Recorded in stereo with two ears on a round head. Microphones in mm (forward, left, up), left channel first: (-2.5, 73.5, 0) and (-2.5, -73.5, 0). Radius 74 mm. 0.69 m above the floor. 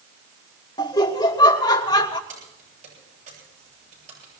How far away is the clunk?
No clunk in this recording.